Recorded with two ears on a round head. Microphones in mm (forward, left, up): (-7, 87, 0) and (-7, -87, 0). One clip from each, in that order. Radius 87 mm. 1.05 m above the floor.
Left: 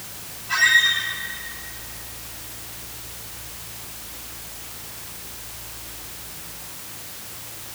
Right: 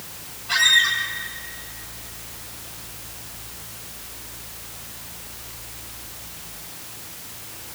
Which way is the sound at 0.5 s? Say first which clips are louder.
Even; 45° right (ahead or behind).